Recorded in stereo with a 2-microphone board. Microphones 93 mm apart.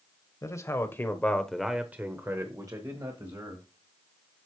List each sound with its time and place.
0.4 s a man speaking: 35° left (ahead or behind), 1.3 m; by 3.7 s 50° right (ahead or behind), 1.7 m